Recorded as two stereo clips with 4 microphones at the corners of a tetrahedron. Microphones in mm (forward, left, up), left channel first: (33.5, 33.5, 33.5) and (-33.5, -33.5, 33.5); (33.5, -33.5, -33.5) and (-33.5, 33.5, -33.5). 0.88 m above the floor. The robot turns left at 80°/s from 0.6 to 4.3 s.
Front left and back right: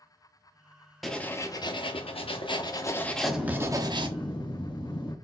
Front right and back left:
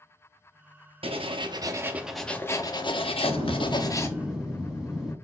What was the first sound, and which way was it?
Writing, 135° left.